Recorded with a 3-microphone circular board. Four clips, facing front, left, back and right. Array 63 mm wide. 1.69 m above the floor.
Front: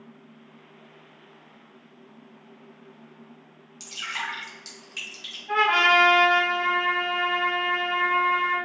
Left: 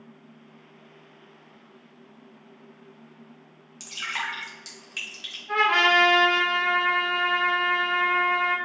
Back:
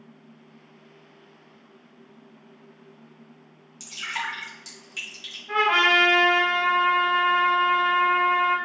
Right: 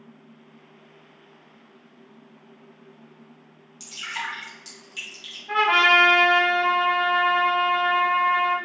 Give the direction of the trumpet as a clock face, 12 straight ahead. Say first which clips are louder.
Right 2 dB, even; 2 o'clock.